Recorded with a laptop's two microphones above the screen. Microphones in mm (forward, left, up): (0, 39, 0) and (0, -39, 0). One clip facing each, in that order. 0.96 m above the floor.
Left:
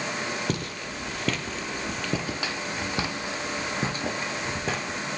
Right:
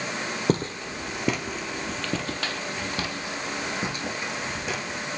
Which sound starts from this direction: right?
Footsteps, at 0.5 s.